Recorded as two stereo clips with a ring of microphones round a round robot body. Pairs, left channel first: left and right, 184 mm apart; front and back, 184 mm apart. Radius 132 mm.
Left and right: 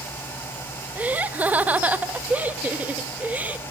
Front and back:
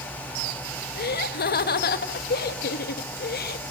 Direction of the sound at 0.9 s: 10° right.